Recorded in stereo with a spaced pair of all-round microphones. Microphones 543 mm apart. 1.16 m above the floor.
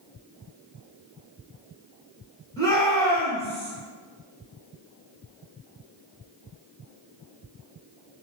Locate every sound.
2.6 s a shout: 5° left (ahead or behind), 1.4 m